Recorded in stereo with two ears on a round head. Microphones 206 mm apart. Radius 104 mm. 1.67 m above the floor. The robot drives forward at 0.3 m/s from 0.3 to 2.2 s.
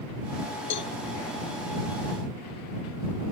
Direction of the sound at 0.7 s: 50° left (ahead or behind).